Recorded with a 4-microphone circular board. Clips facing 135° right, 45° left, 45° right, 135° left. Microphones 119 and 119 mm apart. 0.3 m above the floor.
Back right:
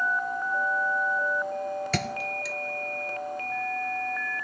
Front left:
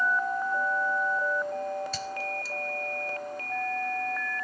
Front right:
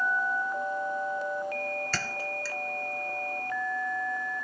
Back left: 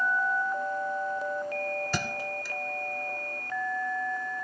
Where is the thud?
150° right.